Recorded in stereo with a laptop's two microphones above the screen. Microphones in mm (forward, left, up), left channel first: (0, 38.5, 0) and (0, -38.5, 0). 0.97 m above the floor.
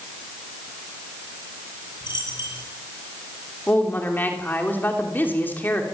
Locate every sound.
2.0 s a dropped coin: 70° left (ahead or behind), 8 m
3.7 s a woman speaking: 25° left (ahead or behind), 3 m